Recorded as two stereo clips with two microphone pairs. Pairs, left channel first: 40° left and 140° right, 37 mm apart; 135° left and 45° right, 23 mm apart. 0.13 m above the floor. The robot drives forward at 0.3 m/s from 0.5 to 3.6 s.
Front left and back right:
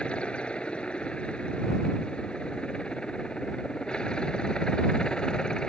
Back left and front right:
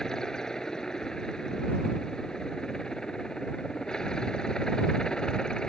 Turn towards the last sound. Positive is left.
turn(degrees=95)